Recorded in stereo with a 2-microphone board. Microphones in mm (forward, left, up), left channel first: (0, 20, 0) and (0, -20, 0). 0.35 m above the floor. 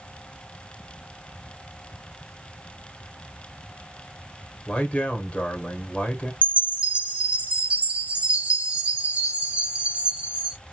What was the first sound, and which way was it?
A man speaking, 35° left (ahead or behind).